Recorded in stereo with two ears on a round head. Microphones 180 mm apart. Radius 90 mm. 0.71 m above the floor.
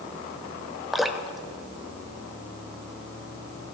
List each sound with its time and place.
0.9 s dripping: centre (ahead or behind), 0.8 m